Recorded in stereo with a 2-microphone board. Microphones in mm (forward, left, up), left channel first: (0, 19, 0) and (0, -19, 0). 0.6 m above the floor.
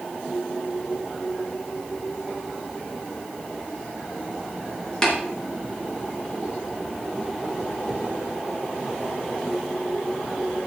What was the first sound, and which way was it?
Tapping, 15° left (ahead or behind).